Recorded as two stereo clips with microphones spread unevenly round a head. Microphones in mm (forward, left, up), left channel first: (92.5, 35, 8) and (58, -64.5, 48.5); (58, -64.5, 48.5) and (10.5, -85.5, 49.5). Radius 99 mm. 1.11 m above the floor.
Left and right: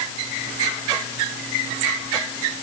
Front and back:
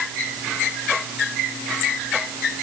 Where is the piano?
I don't hear a piano.